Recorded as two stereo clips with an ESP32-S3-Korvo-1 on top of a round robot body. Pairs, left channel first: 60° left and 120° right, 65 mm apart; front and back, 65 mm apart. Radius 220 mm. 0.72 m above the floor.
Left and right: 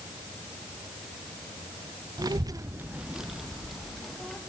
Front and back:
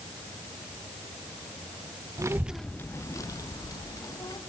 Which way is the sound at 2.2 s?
140° right.